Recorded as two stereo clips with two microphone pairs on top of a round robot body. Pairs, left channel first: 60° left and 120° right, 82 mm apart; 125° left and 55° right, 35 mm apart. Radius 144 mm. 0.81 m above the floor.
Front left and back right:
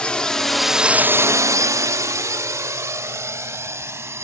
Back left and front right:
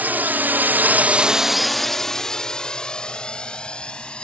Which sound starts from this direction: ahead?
A drone, at 0.0 s.